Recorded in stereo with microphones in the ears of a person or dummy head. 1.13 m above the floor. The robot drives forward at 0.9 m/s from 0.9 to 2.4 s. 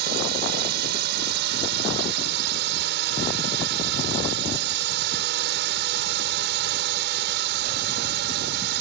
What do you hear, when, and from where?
0.0 s a drone: 55° right (ahead or behind); by 8.8 s 60° right (ahead or behind)